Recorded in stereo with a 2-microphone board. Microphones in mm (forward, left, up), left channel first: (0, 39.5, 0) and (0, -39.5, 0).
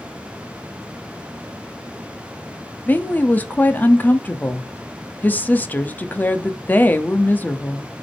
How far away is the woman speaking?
About 1.0 m.